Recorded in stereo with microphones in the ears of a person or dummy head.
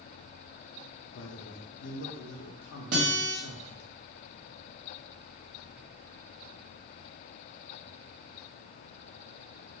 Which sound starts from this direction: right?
A guitar, at 2.9 s.